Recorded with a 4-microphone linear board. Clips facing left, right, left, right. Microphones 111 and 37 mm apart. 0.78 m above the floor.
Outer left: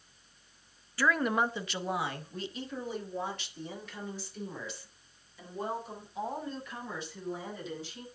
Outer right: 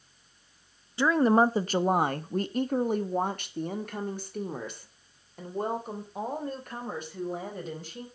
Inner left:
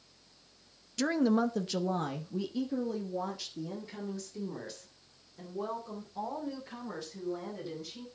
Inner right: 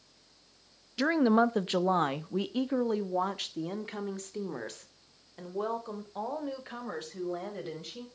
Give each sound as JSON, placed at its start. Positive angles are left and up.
{"t": 1.0, "sound": "a woman speaking", "side_deg": -20, "distance_m": 0.6}